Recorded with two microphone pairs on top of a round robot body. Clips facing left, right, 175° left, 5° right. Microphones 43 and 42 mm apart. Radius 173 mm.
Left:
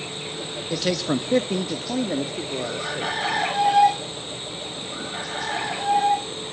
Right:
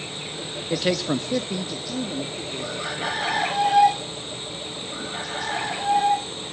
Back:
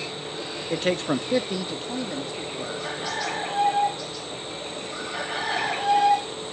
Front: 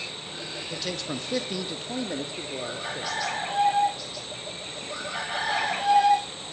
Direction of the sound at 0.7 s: 150° right.